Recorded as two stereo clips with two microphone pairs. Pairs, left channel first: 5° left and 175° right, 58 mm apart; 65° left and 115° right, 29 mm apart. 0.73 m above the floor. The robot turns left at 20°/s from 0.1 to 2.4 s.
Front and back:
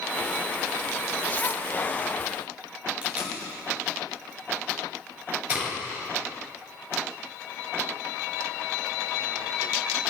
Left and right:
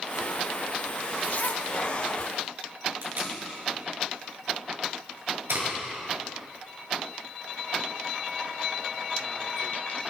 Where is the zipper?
70° left, 0.7 m; by 1.7 s 60° left, 0.7 m.